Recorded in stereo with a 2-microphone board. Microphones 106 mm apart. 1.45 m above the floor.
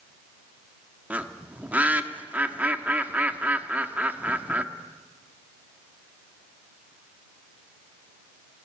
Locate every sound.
1.1 s a bird: 15° right (ahead or behind), 1.2 m